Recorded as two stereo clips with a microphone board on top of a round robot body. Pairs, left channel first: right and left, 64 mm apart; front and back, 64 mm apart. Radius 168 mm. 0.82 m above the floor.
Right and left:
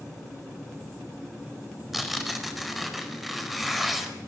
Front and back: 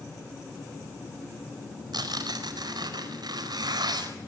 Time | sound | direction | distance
1.9 | tearing paper | straight behind | 4.5 m